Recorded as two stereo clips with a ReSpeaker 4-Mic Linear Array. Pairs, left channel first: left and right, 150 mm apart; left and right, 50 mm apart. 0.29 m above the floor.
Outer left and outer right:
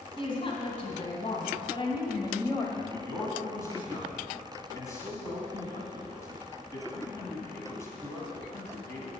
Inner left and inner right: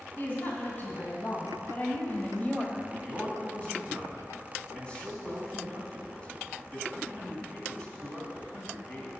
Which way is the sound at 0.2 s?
35° left (ahead or behind).